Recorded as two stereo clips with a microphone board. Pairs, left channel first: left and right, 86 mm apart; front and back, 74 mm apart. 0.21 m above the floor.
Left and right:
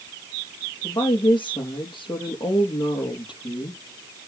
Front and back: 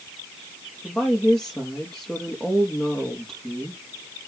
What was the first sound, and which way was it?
A woman speaking, 80° left.